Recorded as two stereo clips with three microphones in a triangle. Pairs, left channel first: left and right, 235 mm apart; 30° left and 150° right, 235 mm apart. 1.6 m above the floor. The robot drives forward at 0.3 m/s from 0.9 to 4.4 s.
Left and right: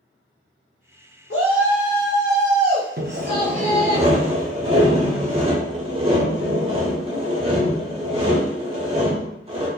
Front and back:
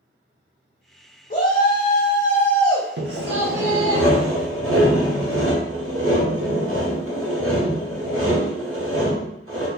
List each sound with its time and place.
1.3 s a shout: 75° left, 0.6 m; by 4.0 s 140° left, 0.9 m
3.0 s sawing: 130° right, 0.5 m; by 9.7 s 155° right, 0.8 m